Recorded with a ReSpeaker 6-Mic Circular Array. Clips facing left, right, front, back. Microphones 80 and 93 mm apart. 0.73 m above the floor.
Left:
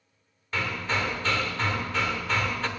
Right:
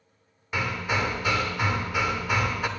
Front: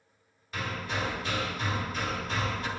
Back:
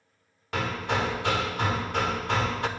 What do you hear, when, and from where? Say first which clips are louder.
0.5 s hammering: right 1 dB, back 6 dB; 165° right, 1.1 m